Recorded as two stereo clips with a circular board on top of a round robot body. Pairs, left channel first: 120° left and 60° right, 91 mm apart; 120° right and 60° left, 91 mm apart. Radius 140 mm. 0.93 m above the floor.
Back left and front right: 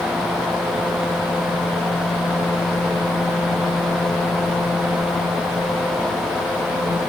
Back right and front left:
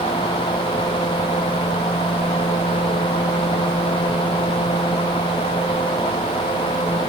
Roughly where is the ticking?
No ticking in this recording.